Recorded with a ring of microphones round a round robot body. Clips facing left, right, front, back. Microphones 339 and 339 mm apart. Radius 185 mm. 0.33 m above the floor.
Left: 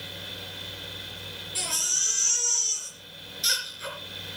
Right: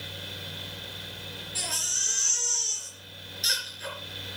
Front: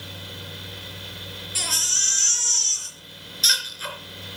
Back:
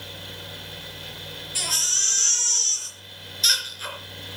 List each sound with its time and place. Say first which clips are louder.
1.6 s a baby crying: left 1 dB, front 1 dB; 5° left, 4 m